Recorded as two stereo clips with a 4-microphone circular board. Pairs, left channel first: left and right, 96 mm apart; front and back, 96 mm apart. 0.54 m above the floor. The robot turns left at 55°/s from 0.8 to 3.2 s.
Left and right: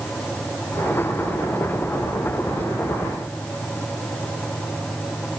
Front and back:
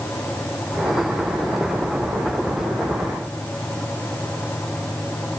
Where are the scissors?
I don't hear scissors.